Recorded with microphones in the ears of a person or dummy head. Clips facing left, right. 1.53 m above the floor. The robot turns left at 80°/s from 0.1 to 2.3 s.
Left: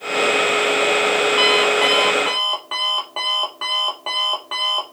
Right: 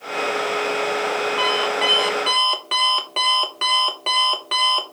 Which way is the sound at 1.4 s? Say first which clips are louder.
Left 5 dB; 50° left.